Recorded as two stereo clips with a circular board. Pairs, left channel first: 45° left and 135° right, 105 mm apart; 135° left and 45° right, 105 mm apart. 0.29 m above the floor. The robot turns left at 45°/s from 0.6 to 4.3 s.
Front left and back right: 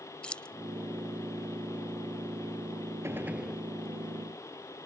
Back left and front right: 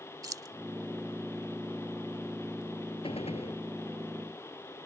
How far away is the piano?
No piano in this recording.